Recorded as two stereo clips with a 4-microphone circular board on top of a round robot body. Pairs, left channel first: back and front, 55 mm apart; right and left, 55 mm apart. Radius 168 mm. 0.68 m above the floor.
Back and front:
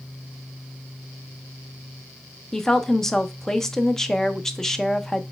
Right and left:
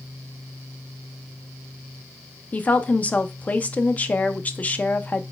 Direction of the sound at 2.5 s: 105° right.